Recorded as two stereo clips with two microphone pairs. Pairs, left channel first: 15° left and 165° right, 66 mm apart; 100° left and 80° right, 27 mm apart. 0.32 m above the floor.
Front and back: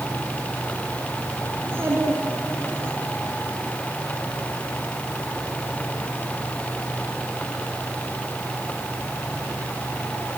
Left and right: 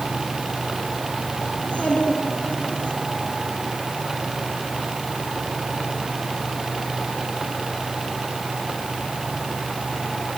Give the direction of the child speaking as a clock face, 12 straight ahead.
7 o'clock.